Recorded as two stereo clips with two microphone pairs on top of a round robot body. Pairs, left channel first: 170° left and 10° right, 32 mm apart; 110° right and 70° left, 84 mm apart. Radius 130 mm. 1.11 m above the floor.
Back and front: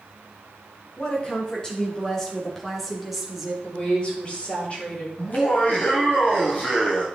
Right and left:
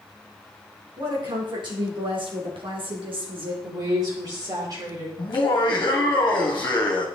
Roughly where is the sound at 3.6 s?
Behind left.